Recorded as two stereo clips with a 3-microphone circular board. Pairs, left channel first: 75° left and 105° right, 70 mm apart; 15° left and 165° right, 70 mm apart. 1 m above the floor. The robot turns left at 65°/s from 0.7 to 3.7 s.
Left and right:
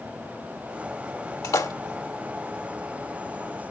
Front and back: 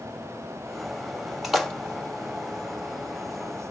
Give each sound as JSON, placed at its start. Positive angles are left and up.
{"t": 1.4, "sound": "a splash", "azimuth_deg": 110, "distance_m": 1.4}